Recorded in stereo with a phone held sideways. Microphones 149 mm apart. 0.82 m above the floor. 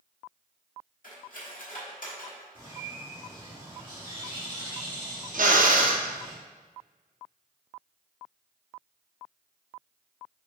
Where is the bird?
35° right (ahead or behind), 1.8 m.